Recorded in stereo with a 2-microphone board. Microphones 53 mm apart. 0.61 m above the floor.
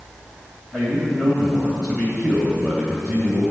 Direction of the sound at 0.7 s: 15° left (ahead or behind).